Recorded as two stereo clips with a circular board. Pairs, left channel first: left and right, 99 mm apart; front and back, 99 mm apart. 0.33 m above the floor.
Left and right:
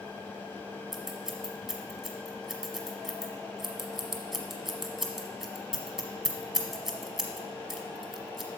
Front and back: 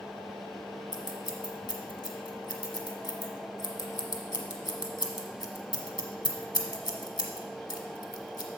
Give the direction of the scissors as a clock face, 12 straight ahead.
12 o'clock.